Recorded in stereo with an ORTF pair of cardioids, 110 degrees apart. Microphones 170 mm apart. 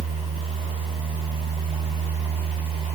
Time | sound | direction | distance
0.0 | a fan | 35° right | 7 m